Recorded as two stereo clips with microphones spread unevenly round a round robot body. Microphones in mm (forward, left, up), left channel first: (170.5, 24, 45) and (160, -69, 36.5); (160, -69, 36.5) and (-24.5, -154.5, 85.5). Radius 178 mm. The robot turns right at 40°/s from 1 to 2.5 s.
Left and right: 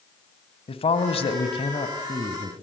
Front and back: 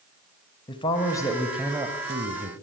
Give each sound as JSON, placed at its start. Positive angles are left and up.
{"t": 0.7, "sound": "a man speaking", "azimuth_deg": 90, "distance_m": 3.0}